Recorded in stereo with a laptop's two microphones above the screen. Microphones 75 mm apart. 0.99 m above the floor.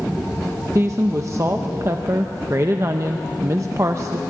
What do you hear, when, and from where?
0.8 s a woman speaking: 40° right (ahead or behind), 0.7 m